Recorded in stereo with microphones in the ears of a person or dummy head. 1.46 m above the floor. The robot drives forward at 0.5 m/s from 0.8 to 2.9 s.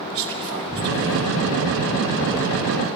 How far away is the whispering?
About 3.5 m.